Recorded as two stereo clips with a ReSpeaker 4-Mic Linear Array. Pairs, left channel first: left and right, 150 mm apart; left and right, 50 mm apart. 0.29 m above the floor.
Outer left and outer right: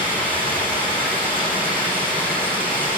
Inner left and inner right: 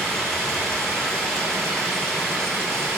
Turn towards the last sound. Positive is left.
turn(degrees=10)  # may be behind; listen again after turning